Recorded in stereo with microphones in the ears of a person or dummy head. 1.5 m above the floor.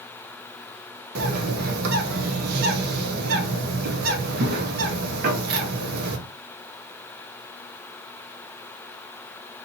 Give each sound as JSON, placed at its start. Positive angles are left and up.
{"t": 1.1, "sound": "a bird", "side_deg": -50, "distance_m": 0.6}